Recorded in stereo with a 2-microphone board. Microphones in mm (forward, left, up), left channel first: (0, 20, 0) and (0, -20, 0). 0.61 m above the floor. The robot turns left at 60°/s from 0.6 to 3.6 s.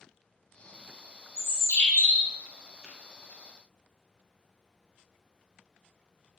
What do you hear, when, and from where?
1.4 s a bird: 120° left, 0.6 m; by 2.3 s 60° left, 0.6 m
2.8 s tapping: 5° right (ahead or behind), 0.7 m; by 2.9 s 10° right (ahead or behind), 0.7 m